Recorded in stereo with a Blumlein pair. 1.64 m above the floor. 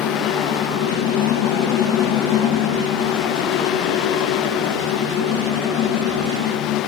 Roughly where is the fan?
Ahead left.